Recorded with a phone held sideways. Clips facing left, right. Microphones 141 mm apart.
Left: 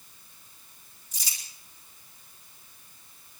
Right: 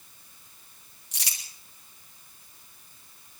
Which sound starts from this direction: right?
Crumpling, at 1.1 s.